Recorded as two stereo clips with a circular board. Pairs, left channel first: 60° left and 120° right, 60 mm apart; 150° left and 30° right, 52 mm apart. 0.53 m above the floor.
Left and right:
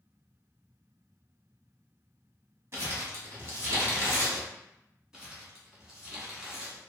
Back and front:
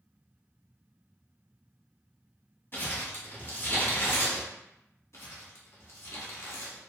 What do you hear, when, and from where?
2.7 s crumpling: 160° right, 1.0 m
5.1 s crumpling: 160° left, 0.8 m